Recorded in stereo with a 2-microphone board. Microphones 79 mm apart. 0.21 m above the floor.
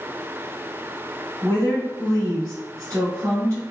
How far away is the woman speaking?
About 1.9 m.